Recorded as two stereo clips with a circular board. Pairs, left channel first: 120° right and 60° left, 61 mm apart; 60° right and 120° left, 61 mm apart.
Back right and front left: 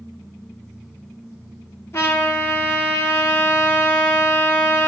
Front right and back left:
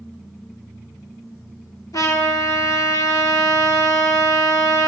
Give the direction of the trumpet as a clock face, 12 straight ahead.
2 o'clock.